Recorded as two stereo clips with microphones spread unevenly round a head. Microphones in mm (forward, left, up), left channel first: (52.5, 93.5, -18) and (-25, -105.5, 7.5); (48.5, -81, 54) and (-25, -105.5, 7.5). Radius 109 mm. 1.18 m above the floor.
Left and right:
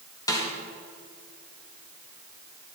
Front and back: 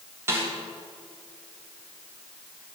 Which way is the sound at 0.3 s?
145° left.